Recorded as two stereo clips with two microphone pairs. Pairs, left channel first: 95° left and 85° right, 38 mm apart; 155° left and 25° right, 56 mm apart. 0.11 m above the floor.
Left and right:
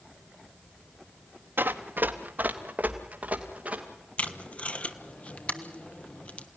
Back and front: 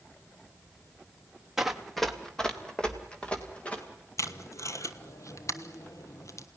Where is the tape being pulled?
145° left, 1.0 m.